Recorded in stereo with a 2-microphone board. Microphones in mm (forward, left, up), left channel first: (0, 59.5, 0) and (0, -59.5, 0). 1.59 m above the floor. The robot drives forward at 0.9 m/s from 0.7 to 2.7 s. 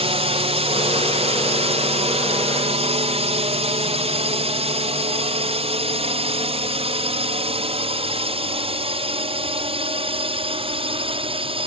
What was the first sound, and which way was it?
A drone, 60° right (ahead or behind).